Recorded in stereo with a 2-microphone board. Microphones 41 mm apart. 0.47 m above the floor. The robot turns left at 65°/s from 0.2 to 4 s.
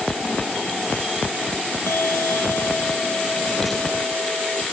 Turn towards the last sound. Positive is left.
turn(degrees=-30)